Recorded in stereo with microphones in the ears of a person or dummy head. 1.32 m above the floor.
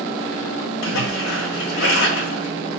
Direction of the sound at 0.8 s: 75° left (ahead or behind).